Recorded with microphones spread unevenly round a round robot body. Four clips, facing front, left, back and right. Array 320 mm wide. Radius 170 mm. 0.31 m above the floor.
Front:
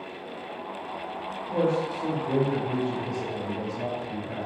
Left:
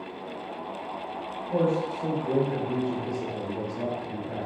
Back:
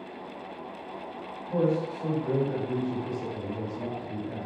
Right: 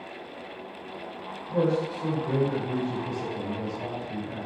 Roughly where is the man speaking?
Behind.